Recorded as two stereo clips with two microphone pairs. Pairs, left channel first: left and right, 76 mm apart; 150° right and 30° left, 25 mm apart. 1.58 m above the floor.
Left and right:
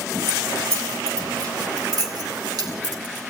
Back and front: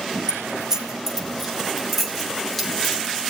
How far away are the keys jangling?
About 2.5 m.